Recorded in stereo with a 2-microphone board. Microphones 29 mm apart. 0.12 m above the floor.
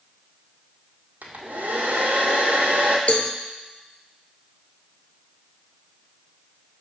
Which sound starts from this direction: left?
A cowbell, at 3.1 s.